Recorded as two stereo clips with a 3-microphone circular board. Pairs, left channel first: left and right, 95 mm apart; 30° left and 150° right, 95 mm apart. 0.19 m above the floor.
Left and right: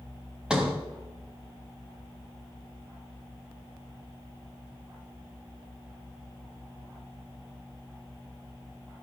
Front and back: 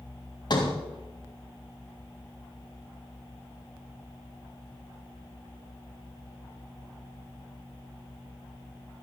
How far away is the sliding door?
About 3.5 m.